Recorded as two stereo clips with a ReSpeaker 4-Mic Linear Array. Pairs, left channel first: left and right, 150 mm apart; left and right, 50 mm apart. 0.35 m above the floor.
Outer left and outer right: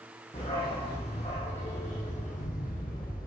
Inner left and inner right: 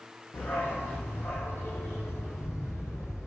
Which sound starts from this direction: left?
A dog barking, at 0.3 s.